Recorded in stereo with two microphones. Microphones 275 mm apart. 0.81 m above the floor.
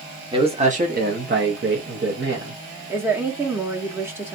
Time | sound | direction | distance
0.3 | a man speaking | 20° right (ahead or behind) | 0.9 m
2.9 | a woman speaking | 10° right (ahead or behind) | 1.0 m